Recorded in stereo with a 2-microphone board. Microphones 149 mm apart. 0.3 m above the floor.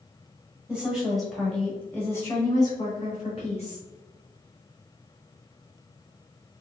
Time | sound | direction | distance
0.7 | a woman speaking | 10° right (ahead or behind) | 1.6 m